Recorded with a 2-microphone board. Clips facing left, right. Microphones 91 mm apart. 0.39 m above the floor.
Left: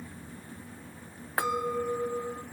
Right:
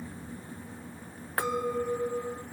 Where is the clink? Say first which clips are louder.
Even; 10° left (ahead or behind), 1.0 m.